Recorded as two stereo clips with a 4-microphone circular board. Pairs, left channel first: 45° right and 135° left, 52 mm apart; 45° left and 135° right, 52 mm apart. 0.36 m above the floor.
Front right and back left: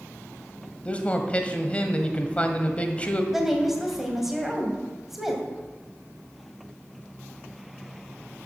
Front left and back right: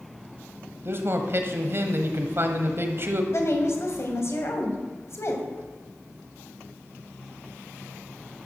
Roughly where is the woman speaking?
Ahead left.